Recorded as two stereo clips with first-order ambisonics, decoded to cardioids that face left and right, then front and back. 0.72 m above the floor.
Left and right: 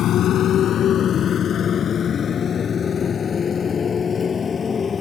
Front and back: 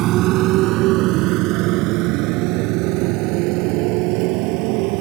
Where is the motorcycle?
140° left; by 5.0 s 160° left.